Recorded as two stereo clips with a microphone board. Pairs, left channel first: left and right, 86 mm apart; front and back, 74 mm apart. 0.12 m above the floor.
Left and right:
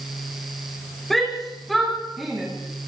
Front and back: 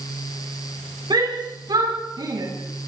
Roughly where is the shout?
Behind.